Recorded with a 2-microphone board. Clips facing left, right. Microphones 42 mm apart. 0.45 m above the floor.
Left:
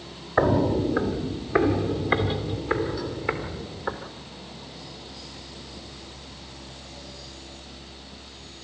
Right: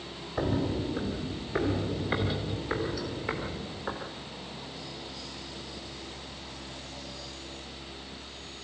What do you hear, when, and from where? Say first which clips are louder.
0.4 s footsteps: left 9 dB; 65° left (ahead or behind), 1.1 m; by 4.0 s 15° left (ahead or behind), 5.5 m